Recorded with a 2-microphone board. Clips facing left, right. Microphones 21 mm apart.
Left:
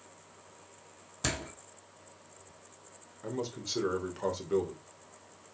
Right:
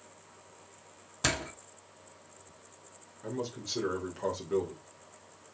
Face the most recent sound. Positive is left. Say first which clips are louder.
# even
turn(degrees=15)  # may be behind; listen again after turning